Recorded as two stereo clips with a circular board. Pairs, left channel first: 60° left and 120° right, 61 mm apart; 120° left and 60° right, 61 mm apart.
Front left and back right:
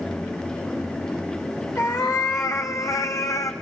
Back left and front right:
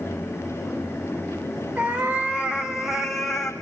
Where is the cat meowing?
5° left, 2.5 m; by 3.5 s 40° left, 2 m.